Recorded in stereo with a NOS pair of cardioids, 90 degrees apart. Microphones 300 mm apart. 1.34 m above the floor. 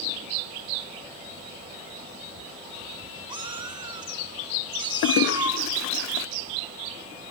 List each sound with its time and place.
3.3 s a cat meowing: 15° right, 2.0 m
5.0 s a toilet flushing: 65° left, 0.5 m